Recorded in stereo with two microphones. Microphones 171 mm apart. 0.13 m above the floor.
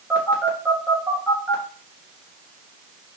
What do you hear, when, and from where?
0.1 s a phone buzzing: 10° right (ahead or behind), 1.7 m